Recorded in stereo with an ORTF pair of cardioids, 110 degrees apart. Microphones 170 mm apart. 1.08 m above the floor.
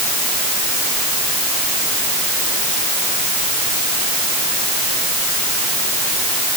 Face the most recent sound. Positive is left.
No sound to turn to.